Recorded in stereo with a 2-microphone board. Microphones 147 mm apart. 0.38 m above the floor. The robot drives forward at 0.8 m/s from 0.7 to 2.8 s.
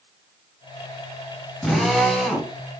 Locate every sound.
1.6 s a drill: centre (ahead or behind), 4 m; by 2.5 s 5° left (ahead or behind), 3 m